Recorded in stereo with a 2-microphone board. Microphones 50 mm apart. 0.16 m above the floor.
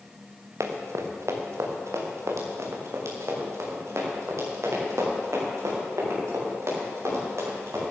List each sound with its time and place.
0.6 s running footsteps: 75° right (ahead or behind), 2.5 m; by 7.8 s 70° right (ahead or behind), 9.5 m